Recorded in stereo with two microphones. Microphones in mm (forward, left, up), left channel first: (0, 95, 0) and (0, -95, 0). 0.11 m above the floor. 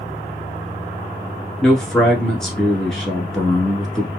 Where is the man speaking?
Centre (ahead or behind), 1.2 m.